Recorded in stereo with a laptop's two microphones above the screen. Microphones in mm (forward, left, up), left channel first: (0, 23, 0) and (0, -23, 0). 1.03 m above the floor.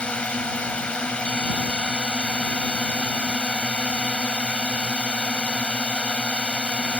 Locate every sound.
0.0 s a drone: 25° left (ahead or behind)